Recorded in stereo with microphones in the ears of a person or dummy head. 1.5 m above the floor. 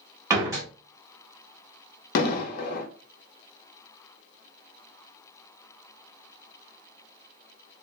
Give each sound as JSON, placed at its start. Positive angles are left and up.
{"t": 0.3, "sound": "a door slam", "side_deg": -20, "distance_m": 0.7}
{"t": 2.1, "sound": "an explosion", "side_deg": 60, "distance_m": 0.7}